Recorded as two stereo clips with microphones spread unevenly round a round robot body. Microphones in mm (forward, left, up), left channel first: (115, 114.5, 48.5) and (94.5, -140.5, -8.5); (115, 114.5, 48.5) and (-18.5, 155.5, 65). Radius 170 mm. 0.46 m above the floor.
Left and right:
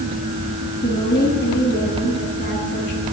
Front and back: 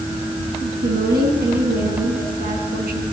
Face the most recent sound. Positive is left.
turn(degrees=160)